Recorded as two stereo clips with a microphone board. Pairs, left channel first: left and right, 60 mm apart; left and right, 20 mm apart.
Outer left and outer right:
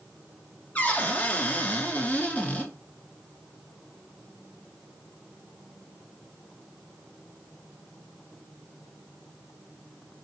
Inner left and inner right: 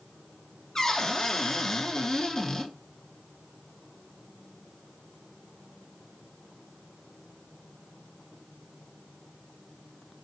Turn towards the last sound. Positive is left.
turn(degrees=30)  # may be behind; listen again after turning